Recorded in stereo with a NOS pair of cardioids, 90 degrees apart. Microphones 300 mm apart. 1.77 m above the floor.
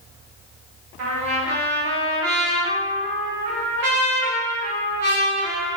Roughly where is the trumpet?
Ahead right.